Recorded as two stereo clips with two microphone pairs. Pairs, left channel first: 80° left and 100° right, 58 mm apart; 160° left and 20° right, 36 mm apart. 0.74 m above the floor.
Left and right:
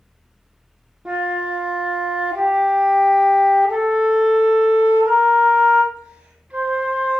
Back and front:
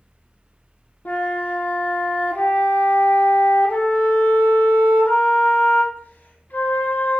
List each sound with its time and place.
1.1 s a flute: 170° right, 1.6 m